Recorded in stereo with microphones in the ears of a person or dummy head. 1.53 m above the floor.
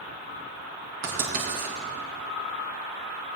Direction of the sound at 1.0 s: 70° right (ahead or behind).